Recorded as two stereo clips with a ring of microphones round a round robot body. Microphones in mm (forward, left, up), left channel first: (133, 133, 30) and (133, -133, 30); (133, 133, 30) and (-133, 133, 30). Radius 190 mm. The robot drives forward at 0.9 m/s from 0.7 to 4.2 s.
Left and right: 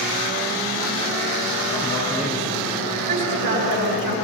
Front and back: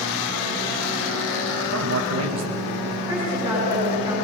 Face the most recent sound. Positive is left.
turn(degrees=-105)